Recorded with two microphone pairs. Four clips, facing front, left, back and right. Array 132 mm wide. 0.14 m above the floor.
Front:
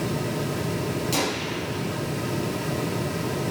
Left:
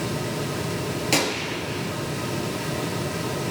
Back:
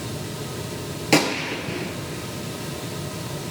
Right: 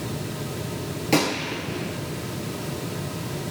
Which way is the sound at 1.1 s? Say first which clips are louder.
Right 5 dB, back 5 dB; 175° left.